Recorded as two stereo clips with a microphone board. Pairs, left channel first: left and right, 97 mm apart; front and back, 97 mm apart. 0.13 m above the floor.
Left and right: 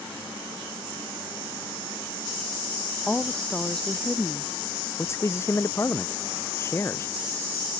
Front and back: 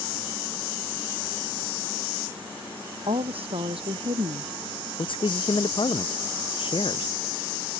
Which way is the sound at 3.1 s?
170° left.